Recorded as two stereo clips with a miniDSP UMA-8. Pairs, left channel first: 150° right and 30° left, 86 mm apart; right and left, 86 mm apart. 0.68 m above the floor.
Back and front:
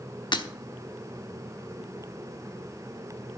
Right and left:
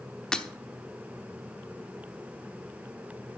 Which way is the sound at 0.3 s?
170° right.